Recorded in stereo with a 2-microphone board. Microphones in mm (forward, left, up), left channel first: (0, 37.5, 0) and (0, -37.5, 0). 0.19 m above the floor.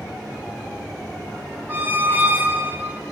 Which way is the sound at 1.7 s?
25° right (ahead or behind).